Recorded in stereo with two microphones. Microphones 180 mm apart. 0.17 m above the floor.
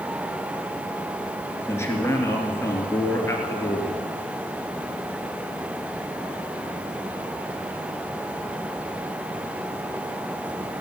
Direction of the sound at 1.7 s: 15° left (ahead or behind).